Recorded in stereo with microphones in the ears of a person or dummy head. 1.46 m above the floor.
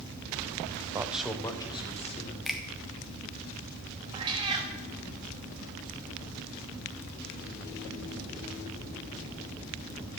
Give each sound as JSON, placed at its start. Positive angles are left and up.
{"t": 0.9, "sound": "a man speaking", "side_deg": -20, "distance_m": 0.7}
{"t": 2.5, "sound": "a finger snap", "side_deg": 0, "distance_m": 0.8}
{"t": 4.1, "sound": "a cat meowing", "side_deg": -25, "distance_m": 1.1}